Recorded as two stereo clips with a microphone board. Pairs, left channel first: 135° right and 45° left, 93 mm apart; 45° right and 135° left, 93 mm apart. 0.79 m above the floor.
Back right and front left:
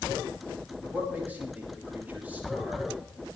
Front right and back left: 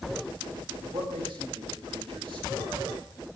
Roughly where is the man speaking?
Behind left.